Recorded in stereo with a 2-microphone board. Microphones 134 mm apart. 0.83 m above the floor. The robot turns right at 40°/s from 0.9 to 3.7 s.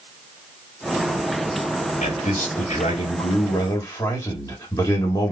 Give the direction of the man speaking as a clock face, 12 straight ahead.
9 o'clock.